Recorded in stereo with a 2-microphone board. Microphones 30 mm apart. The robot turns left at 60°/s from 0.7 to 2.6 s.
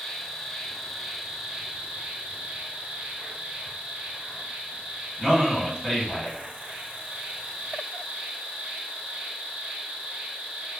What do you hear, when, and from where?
0.0 s an insect: 15° left, 0.8 m; by 10.8 s 100° right, 0.8 m
5.2 s a man speaking: 20° left (ahead or behind), 1.8 m